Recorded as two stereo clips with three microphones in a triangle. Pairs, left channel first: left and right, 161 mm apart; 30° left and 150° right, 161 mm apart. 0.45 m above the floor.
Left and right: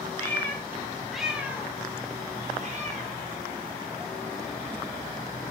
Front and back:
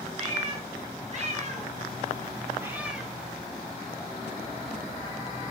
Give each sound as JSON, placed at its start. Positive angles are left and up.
{"t": 0.2, "sound": "a cat meowing", "azimuth_deg": 165, "distance_m": 1.1}